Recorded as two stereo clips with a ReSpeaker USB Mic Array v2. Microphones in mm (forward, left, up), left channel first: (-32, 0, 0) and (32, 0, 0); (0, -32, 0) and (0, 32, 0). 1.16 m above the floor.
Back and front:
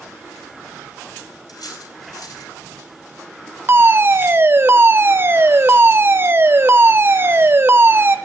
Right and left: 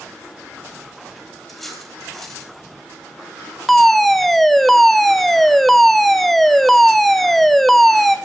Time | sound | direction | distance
1.5 | cutlery clinking | 175° right | 3.5 m
3.7 | a fire alarm | 5° right | 1.2 m